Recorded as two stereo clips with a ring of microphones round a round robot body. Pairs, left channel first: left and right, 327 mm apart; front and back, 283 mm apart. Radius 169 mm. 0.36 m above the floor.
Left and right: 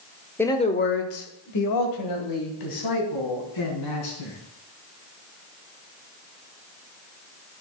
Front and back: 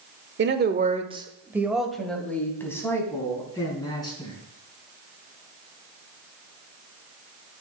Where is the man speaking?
170° left, 1.2 m; by 4.3 s 75° left, 4.5 m.